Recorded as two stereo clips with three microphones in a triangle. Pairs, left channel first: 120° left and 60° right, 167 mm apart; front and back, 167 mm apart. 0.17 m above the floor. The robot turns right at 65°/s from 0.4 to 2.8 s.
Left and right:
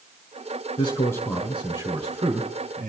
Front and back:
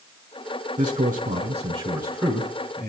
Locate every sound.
0.8 s a man speaking: 165° left, 2.0 m; by 2.9 s 60° right, 2.0 m